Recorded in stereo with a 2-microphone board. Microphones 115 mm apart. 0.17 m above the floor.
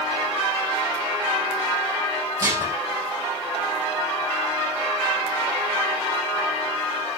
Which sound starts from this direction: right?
Dishes clattering, at 2.4 s.